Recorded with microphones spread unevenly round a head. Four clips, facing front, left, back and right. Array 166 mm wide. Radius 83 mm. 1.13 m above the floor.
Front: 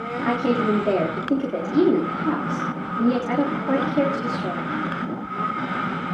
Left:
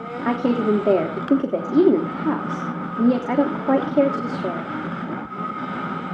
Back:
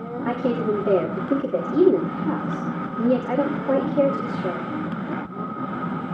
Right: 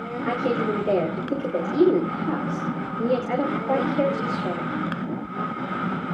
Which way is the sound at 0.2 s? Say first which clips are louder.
Left 4 dB, front 2 dB; 85° left.